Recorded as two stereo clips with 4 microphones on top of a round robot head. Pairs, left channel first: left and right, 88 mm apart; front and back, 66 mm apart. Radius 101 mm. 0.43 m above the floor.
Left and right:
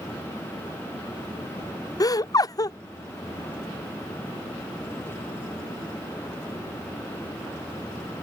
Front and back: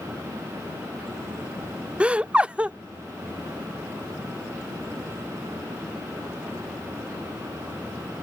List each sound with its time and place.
2.0 s laughter: 110° left